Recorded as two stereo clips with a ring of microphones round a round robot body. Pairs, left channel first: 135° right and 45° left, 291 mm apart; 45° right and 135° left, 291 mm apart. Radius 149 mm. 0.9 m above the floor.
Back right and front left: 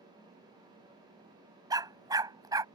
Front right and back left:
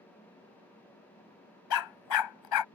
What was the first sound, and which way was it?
A dog barking, 35° right.